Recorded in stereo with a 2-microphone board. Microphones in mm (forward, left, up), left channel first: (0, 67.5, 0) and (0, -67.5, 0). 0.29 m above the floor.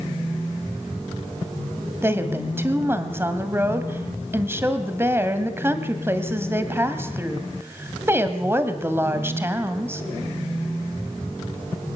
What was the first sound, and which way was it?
A woman speaking, 20° right (ahead or behind).